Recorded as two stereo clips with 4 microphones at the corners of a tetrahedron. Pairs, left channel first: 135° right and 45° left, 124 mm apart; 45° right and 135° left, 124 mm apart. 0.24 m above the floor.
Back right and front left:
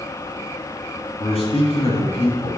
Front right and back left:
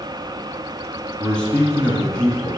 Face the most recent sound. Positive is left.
turn(degrees=-125)